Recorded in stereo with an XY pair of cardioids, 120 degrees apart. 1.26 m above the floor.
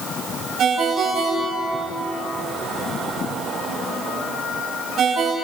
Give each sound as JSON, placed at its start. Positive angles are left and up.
{"t": 0.6, "sound": "a ringtone", "azimuth_deg": -55, "distance_m": 4.5}